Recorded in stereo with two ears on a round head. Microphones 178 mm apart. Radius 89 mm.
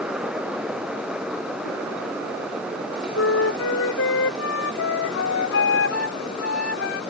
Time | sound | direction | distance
3.1 | a flute | 75° left (ahead or behind) | ?